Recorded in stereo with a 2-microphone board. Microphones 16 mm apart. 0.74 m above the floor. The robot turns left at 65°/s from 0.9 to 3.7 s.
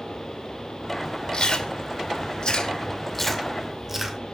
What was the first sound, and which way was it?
Chewing, 40° left (ahead or behind).